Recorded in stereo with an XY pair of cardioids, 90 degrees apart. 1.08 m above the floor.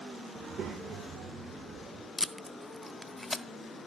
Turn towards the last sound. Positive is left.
turn(degrees=25)